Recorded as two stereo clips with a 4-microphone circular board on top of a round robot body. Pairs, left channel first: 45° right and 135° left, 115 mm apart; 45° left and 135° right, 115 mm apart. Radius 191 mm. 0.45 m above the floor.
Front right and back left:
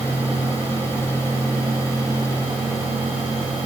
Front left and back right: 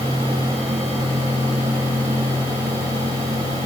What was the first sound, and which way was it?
Only background noise.